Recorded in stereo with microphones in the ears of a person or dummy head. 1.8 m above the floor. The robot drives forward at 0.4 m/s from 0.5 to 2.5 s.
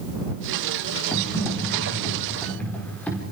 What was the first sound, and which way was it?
Typing on a keyboard, 10° left (ahead or behind).